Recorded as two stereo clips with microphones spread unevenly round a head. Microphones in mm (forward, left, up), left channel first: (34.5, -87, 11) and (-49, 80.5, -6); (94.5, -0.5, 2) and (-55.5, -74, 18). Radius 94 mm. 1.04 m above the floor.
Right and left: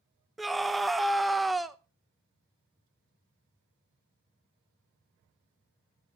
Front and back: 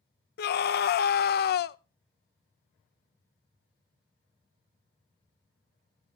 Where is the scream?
30° left, 0.5 m.